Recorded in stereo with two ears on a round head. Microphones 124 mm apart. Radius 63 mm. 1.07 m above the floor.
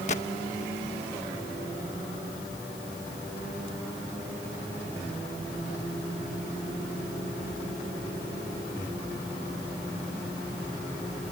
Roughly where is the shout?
No shout in this recording.